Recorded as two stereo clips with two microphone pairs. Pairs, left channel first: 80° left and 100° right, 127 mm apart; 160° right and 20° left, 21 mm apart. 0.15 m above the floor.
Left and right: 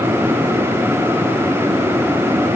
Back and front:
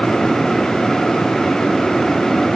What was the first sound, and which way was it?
Only background noise.